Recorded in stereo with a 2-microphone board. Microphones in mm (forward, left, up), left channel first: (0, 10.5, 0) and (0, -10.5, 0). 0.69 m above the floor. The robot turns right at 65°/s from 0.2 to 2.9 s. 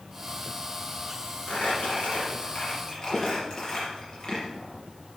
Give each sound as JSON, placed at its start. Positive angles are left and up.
{"t": 1.5, "sound": "crumpling", "side_deg": 60, "distance_m": 5.0}